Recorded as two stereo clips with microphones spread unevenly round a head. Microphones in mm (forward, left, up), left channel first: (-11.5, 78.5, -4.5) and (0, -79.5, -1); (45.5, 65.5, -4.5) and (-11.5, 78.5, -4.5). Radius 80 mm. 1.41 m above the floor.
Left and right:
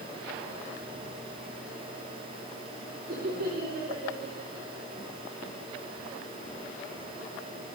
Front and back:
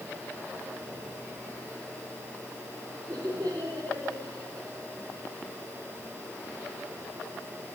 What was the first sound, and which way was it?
Laughter, 125° right.